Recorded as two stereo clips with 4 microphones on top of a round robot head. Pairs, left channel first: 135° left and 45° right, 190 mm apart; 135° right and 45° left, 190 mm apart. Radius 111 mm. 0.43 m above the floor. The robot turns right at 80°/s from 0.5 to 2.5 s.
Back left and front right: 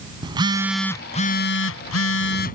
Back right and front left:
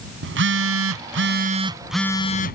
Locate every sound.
0.2 s a phone buzzing: 20° left; by 2.5 s straight behind